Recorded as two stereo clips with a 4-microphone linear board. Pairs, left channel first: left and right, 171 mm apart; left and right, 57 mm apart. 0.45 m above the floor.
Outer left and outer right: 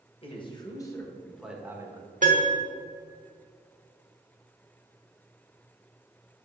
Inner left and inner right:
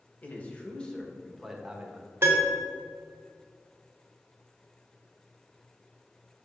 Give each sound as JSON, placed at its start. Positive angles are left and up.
{"t": 0.2, "sound": "a man speaking", "side_deg": 35, "distance_m": 1.8}
{"t": 2.2, "sound": "a piano", "side_deg": -50, "distance_m": 1.6}